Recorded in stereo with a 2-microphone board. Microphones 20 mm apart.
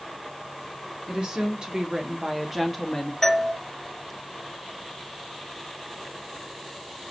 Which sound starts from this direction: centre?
A doorbell, at 3.2 s.